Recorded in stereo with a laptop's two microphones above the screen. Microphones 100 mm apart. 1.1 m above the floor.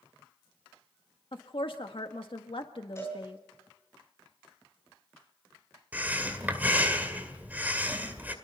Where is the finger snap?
I don't hear a finger snap.